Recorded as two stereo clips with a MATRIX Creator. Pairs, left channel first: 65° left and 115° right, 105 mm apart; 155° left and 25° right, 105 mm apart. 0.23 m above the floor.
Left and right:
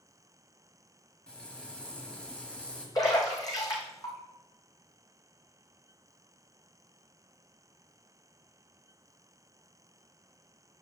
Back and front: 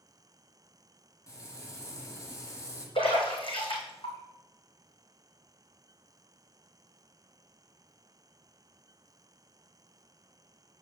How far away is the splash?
About 2 m.